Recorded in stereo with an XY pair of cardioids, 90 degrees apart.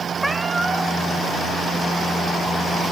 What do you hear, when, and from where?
0.2 s a cat meowing: 5° right, 3.5 m